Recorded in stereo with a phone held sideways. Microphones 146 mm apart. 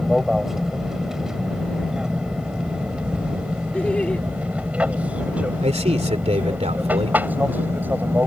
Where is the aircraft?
5° right (ahead or behind); by 8.3 s 15° right (ahead or behind).